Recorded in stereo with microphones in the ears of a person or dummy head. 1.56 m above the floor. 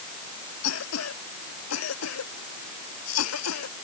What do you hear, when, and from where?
0.6 s a cough: 80° left